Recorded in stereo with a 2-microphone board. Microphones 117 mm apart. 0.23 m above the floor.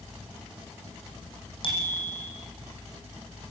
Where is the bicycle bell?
50° left (ahead or behind), 7.5 m.